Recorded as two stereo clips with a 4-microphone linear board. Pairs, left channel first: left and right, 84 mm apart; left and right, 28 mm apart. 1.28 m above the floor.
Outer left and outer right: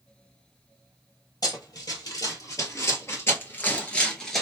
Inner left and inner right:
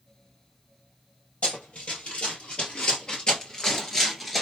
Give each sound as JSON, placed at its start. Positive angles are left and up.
{"t": 1.4, "sound": "running footsteps", "side_deg": 55, "distance_m": 2.0}